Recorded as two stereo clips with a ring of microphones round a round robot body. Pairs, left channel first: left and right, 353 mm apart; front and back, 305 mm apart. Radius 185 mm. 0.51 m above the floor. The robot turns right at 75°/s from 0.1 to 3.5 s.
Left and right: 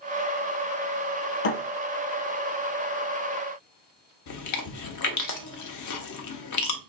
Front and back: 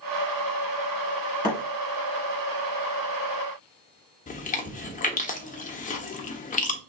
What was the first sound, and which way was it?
A thud, 75° left.